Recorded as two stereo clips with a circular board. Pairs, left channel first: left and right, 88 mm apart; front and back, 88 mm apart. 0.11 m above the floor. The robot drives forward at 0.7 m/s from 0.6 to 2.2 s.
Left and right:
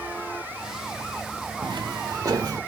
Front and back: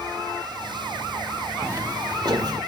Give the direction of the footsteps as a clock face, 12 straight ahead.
4 o'clock.